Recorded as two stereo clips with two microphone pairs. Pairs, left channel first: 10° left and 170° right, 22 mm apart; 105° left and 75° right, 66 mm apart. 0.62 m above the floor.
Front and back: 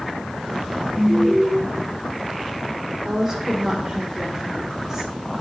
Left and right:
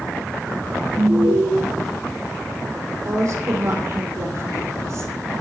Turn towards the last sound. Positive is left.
turn(degrees=-105)